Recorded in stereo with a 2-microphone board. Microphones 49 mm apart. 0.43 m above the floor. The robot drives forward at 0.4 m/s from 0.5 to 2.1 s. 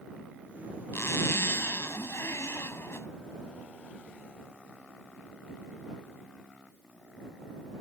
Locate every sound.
0.9 s a zipper: 70° left (ahead or behind)